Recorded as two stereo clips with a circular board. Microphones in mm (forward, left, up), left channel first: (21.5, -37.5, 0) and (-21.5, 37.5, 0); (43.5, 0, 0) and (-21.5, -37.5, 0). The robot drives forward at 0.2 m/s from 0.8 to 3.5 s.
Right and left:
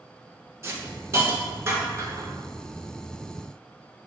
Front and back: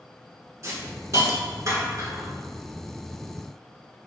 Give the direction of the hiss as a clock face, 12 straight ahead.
6 o'clock.